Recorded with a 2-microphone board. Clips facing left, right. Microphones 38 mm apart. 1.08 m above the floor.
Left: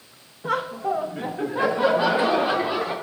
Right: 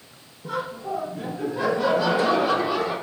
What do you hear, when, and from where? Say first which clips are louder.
0.4 s laughter: left 5 dB; 65° left (ahead or behind), 1.1 m; by 2.9 s 25° left (ahead or behind), 2.5 m